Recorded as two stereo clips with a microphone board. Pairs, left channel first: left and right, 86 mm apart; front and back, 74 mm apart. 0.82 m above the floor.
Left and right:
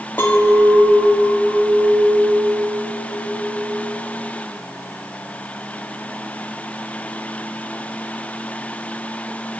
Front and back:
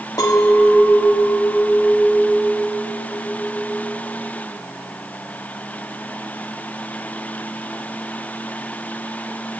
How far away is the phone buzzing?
No phone buzzing in this recording.